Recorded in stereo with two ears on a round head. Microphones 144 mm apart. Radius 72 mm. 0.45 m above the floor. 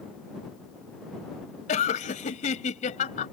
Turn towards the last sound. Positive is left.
turn(degrees=50)  # may be behind; listen again after turning